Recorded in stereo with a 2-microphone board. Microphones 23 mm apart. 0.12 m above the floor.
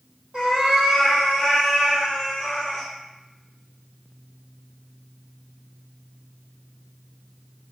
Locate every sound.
0.3 s a cat meowing: 30° right (ahead or behind), 1.7 m; by 2.9 s 15° left (ahead or behind), 3.5 m